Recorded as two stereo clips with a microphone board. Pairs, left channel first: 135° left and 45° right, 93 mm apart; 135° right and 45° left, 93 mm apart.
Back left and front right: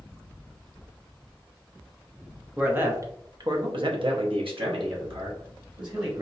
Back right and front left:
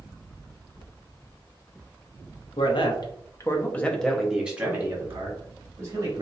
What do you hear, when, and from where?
2.6 s a man speaking: 115° right, 1.1 m; by 6.2 s 5° right, 2 m